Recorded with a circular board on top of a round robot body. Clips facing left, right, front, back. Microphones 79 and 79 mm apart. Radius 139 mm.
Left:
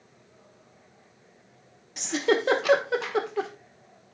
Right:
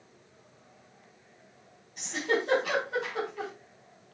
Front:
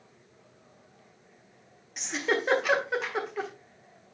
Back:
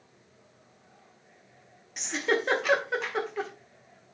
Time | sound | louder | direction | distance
2.0 | a giggle | left 5 dB, back 1 dB | 90° left | 1.4 m